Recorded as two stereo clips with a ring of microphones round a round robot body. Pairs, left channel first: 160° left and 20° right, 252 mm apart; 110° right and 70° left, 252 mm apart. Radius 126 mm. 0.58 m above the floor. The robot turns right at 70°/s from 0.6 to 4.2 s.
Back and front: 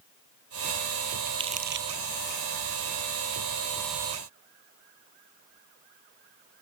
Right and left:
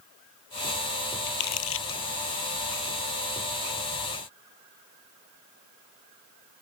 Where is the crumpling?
105° right; by 2.0 s 55° right.